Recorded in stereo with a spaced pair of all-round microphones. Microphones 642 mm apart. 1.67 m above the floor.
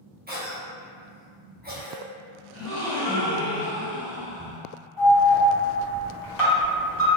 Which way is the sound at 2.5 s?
5° right (ahead or behind).